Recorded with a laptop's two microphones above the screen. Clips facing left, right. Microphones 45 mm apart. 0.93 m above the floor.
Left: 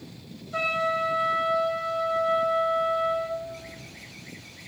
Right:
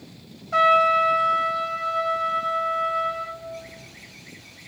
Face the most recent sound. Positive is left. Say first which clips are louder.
# right 9 dB
turn(degrees=-75)  # may be behind; listen again after turning